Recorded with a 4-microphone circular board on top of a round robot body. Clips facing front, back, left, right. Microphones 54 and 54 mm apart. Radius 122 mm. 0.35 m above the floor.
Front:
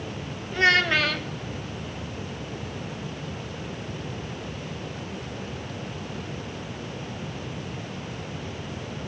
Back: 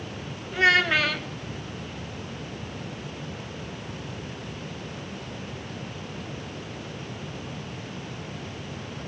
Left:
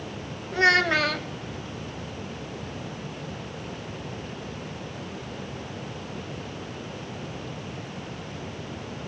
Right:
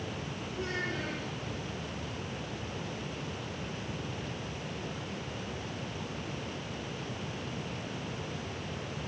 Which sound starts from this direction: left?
A child speaking, at 0.5 s.